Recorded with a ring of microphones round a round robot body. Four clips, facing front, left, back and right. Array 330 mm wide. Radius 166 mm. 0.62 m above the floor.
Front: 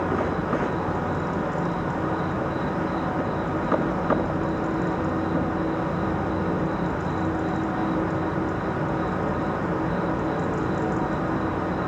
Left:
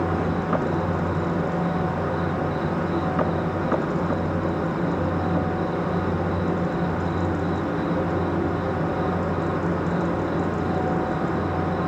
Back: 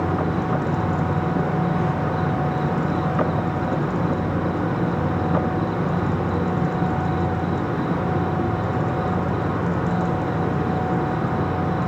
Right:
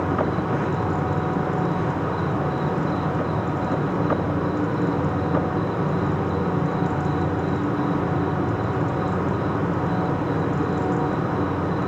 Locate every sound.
0.0 s an insect: 160° right, 9.5 m